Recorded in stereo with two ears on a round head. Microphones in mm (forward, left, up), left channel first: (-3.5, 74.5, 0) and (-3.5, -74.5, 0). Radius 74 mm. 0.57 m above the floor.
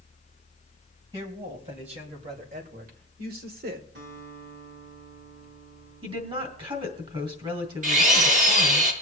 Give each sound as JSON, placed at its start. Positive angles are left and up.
{"t": 1.1, "sound": "a woman speaking", "side_deg": -35, "distance_m": 4.0}
{"t": 4.0, "sound": "a guitar", "side_deg": -75, "distance_m": 5.0}
{"t": 6.0, "sound": "a woman speaking", "side_deg": -30, "distance_m": 3.0}
{"t": 7.8, "sound": "a drill", "side_deg": -50, "distance_m": 3.0}